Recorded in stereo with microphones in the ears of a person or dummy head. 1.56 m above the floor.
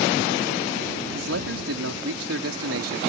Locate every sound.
1.1 s a man speaking: 85° right